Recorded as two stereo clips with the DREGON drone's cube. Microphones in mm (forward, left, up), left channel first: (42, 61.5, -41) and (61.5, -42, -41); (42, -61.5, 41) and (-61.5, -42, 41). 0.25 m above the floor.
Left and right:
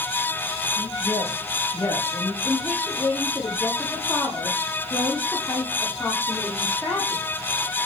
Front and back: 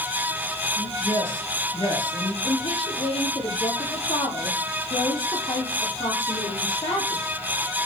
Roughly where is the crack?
No crack in this recording.